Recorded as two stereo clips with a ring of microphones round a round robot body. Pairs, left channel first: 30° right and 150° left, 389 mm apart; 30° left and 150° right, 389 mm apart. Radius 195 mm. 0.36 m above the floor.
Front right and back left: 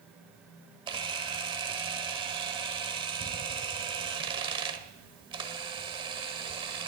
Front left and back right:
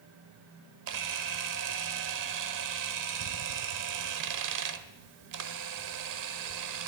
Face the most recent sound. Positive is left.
turn(degrees=-135)